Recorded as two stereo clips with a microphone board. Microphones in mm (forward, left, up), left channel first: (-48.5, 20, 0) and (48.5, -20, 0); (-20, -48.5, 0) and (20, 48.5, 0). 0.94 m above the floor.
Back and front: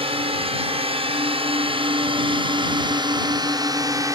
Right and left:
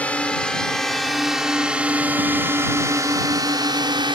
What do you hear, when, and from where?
0.0 s a drone: 35° right; by 4.2 s 30° left